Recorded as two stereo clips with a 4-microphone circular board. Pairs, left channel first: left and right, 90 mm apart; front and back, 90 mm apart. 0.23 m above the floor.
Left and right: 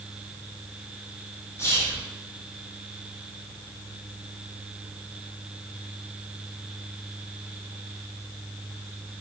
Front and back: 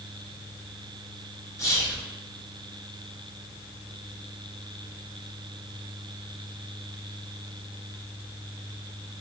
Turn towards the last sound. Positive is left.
turn(degrees=40)